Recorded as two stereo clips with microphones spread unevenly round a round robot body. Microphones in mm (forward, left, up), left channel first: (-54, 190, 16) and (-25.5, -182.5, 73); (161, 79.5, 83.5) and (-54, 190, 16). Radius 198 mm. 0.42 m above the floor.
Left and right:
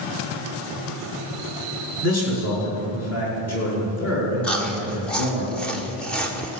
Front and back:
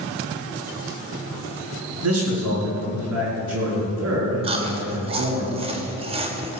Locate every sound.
2.0 s a man speaking: 145° left, 6.5 m
4.4 s chewing: 170° left, 1.5 m